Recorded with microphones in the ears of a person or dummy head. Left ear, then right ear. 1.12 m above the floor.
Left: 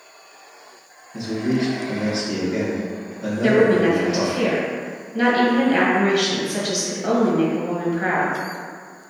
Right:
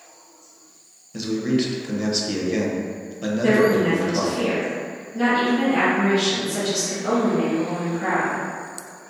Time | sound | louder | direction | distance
1.1 | a man speaking | even | 50° right (ahead or behind) | 0.6 m
3.4 | a woman speaking | left 2 dB | 45° left (ahead or behind) | 0.9 m